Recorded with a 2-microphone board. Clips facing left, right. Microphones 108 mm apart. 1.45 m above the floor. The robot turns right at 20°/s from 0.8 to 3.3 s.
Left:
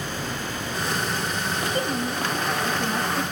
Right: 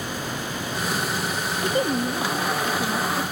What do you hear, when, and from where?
1.6 s a woman speaking: 25° right, 0.7 m; by 3.2 s 5° left, 0.7 m